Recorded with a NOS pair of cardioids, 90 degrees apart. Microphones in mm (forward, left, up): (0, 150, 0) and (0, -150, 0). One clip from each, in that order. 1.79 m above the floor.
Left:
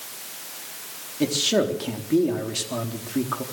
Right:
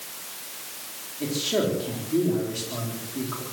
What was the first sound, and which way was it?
A man speaking, 65° left.